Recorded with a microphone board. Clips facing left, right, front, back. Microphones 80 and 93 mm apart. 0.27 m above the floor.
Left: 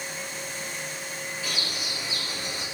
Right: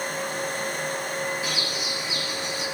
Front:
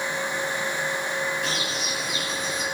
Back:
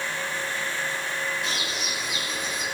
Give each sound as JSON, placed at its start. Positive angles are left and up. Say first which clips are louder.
{"t": 1.4, "sound": "a bird", "louder": "right 4 dB, front 2 dB", "azimuth_deg": -25, "distance_m": 5.5}